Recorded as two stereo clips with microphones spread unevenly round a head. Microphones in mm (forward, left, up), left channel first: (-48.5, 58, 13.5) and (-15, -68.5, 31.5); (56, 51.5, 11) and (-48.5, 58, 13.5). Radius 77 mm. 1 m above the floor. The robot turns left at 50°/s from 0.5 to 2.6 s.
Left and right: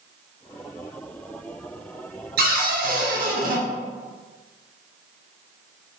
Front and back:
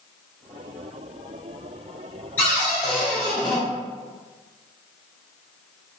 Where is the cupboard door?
80° right, 0.6 m; by 3.6 s 90° right, 0.6 m.